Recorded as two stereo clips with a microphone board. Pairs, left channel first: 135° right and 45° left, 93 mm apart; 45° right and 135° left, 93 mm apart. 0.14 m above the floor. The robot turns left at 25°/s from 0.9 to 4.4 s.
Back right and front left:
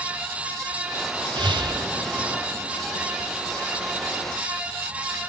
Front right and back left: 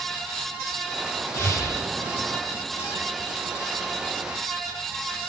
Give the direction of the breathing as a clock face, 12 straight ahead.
11 o'clock.